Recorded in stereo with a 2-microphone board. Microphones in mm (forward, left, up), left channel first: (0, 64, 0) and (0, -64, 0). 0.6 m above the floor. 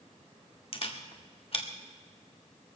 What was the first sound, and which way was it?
A camera shutter, 50° left (ahead or behind).